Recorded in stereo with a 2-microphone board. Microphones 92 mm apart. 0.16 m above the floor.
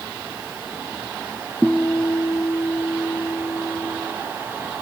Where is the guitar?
5° left (ahead or behind), 0.7 m.